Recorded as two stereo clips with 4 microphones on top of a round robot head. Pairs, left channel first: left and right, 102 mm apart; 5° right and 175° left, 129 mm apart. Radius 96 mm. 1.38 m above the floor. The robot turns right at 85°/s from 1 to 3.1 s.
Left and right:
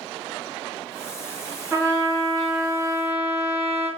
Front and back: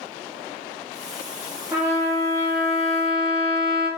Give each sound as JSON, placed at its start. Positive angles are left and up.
{"t": 1.7, "sound": "a trumpet", "azimuth_deg": -120, "distance_m": 0.8}